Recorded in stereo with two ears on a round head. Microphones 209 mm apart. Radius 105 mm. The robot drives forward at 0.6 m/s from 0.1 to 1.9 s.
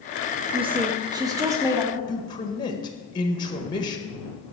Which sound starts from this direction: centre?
A man speaking, at 2.1 s.